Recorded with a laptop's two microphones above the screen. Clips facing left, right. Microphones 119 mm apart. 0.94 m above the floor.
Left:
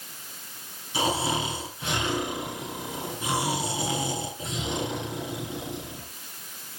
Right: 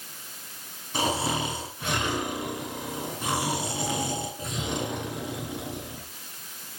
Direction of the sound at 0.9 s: 55° right (ahead or behind).